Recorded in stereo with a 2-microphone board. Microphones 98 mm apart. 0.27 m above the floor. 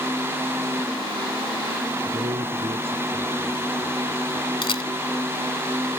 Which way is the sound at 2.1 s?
70° right (ahead or behind).